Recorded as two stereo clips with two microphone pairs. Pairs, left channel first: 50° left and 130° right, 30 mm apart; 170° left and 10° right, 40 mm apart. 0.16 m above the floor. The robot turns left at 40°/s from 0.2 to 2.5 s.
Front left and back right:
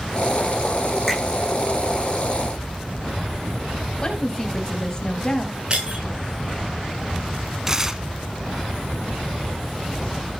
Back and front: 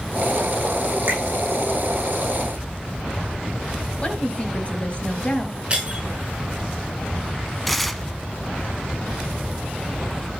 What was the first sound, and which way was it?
A finger snap, 35° right.